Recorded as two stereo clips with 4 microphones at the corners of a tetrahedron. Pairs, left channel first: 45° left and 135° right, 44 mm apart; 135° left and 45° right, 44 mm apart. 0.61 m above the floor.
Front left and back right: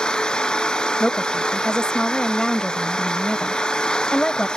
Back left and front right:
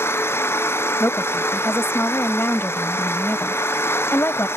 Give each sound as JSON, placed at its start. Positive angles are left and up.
{"t": 0.0, "sound": "an engine running", "azimuth_deg": 120}
{"t": 1.0, "sound": "a woman speaking", "azimuth_deg": 115}